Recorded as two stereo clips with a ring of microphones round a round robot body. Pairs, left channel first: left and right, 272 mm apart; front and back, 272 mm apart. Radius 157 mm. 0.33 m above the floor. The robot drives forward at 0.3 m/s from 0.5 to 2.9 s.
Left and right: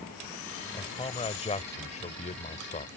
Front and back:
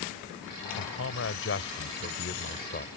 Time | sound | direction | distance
0.7 | a man speaking | 25° left | ?